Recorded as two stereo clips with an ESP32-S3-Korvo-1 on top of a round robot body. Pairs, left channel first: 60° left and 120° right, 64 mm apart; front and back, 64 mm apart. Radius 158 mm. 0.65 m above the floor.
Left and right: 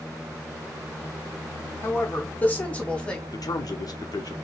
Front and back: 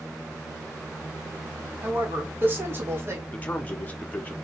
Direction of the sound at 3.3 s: 65° left.